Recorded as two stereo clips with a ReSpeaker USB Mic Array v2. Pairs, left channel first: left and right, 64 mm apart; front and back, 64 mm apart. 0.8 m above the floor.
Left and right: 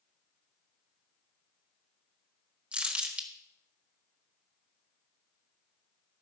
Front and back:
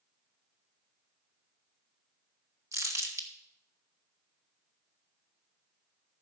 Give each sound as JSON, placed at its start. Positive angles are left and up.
{"t": 2.7, "sound": "crumpling", "azimuth_deg": -155, "distance_m": 1.6}